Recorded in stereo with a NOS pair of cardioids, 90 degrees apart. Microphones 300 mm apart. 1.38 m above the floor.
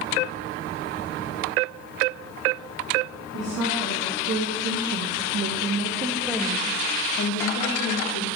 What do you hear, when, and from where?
3.3 s a woman speaking: 70° right, 3.5 m; by 8.3 s 70° left, 2 m